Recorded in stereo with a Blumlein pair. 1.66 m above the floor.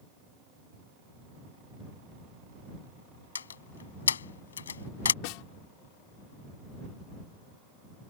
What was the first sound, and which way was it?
A door slam, 70° left.